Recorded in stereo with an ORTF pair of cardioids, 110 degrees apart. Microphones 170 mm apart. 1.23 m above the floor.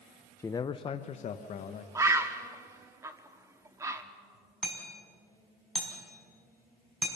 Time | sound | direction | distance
0.4 | a man speaking | 15° left | 0.6 m
1.9 | a bird | 20° right | 1.5 m
4.6 | hammering | straight ahead | 5 m